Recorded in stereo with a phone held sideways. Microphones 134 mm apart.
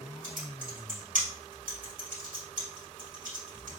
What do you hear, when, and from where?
0.2 s typing on a keyboard: 80° right, 1.7 m